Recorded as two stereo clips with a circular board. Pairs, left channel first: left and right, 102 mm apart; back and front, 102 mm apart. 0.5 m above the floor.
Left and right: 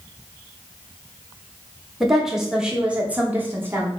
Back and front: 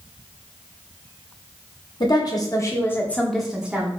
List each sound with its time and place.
2.0 s a woman speaking: straight behind, 1.0 m; by 3.9 s 50° right, 0.8 m